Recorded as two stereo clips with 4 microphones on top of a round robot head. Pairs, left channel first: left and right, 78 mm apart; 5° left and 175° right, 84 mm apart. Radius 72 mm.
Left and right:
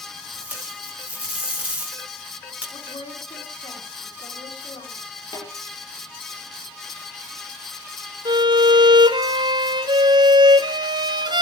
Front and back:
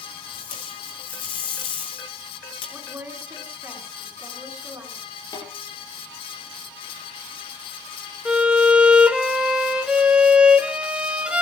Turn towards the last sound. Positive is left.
turn(degrees=-95)